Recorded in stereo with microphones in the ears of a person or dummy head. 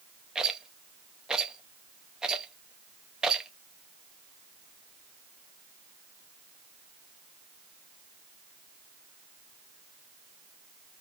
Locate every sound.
0.3 s a rattle: centre (ahead or behind), 0.7 m